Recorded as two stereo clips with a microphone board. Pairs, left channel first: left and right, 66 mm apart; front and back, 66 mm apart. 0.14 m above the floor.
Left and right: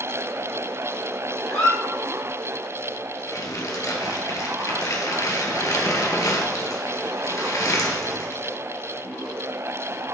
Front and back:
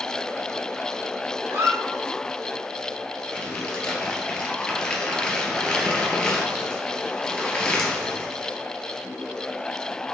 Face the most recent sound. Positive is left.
turn(degrees=75)